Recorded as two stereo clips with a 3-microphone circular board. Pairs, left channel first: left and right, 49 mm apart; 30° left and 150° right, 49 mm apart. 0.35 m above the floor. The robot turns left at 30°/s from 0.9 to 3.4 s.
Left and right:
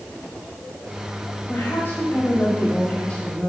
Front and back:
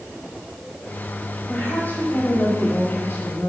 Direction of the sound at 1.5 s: 75° left.